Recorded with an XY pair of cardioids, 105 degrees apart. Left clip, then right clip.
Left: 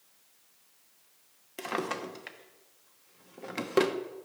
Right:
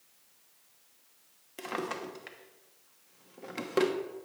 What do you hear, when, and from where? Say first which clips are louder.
1.6 s a drawer: left 2 dB; 20° left, 1.0 m